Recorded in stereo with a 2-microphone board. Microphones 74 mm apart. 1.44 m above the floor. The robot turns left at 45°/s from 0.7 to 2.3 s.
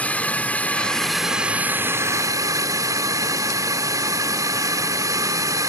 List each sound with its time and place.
0.0 s a drone: 20° left; by 5.7 s 55° right